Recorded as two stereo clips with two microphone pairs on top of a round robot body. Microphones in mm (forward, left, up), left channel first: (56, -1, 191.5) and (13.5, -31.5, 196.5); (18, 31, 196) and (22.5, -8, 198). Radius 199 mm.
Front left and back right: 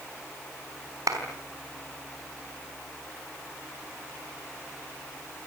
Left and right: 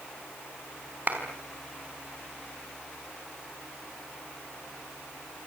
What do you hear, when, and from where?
1.1 s a clap: 140° right, 4.5 m